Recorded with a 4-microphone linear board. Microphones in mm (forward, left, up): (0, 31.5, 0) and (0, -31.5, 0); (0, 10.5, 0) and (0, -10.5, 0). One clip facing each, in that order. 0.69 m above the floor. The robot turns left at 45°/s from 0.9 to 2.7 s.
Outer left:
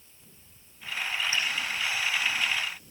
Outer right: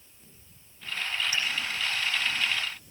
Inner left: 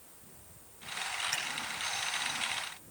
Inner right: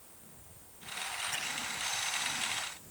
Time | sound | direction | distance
1.3 | a finger snap | 35° left (ahead or behind) | 8 m